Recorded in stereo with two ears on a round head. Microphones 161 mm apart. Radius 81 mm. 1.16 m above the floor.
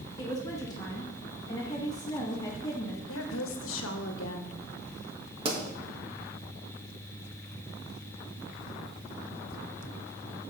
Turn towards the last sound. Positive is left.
turn(degrees=-30)  # may be behind; listen again after turning